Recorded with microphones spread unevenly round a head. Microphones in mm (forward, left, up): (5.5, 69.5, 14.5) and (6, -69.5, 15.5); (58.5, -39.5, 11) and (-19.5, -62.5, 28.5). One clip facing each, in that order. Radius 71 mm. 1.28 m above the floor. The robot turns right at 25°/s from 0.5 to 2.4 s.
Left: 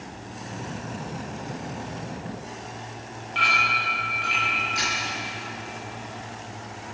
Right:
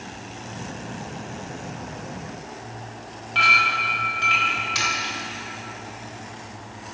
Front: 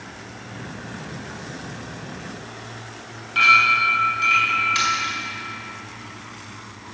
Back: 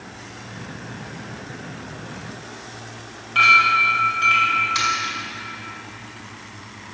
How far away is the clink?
About 4.5 m.